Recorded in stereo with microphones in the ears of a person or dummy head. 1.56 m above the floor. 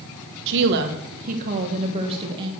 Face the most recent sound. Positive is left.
turn(degrees=-25)  # may be behind; listen again after turning